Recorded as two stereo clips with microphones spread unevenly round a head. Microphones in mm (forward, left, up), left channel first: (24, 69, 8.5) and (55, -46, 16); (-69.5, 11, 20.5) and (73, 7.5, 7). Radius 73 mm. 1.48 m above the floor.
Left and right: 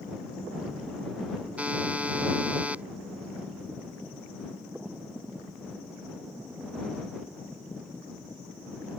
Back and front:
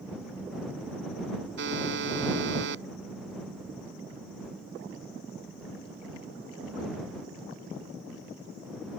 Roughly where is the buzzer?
Ahead.